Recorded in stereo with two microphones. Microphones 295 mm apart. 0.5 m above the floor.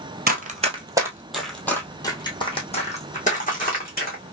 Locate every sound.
0.3 s running footsteps: 30° right (ahead or behind), 0.9 m; by 4.3 s 30° left (ahead or behind), 2.5 m